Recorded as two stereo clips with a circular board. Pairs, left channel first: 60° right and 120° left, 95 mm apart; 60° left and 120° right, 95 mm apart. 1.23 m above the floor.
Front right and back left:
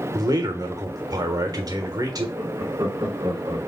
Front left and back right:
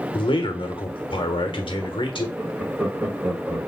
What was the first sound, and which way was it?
A man speaking, 75° left.